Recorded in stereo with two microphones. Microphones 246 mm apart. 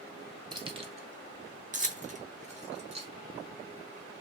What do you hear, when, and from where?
0.5 s keys jangling: 20° right (ahead or behind), 0.9 m; by 3.1 s 25° right (ahead or behind), 1.5 m